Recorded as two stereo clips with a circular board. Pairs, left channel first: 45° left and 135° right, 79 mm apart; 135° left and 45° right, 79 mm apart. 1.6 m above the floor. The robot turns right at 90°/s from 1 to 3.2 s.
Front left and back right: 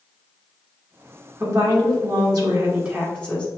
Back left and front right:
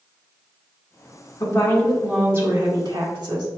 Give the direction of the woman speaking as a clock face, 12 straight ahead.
6 o'clock.